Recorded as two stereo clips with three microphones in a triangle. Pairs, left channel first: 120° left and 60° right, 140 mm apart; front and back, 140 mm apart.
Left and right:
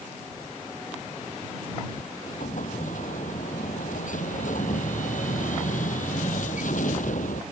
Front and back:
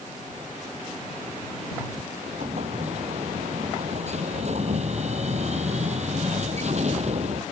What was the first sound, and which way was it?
An explosion, 145° left.